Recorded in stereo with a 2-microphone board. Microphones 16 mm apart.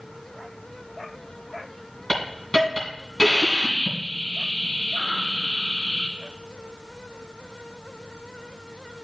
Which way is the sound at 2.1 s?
35° left (ahead or behind).